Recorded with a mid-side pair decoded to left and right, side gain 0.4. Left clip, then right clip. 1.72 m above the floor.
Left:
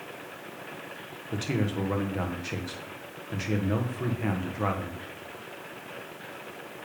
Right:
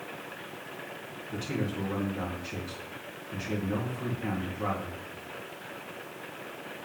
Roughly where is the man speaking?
Ahead left.